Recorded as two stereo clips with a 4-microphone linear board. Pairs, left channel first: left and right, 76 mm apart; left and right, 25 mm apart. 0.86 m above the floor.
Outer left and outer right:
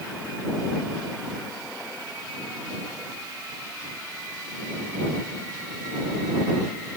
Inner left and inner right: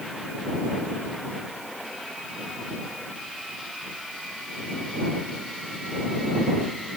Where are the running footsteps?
I don't hear running footsteps.